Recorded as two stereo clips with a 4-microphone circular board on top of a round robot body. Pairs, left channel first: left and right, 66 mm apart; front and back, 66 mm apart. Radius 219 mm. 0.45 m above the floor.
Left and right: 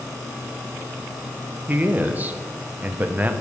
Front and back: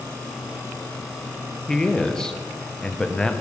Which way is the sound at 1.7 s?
70° right.